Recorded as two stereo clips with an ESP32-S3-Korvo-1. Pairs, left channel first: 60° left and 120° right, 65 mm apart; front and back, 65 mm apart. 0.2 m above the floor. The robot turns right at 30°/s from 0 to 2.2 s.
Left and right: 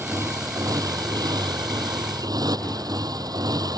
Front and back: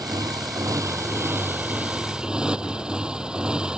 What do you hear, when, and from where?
0.0 s a motorcycle: 170° right; by 3.8 s 105° right